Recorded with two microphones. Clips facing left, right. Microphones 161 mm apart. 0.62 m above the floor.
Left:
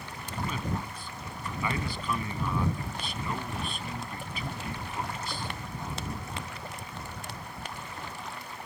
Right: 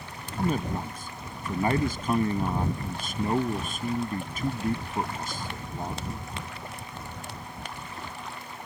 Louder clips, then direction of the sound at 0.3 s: Right 6 dB; 45° right (ahead or behind).